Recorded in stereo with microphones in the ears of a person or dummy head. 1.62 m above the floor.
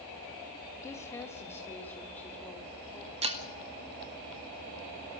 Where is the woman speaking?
15° left (ahead or behind), 2.0 m; by 3.1 s 10° left (ahead or behind), 3.5 m.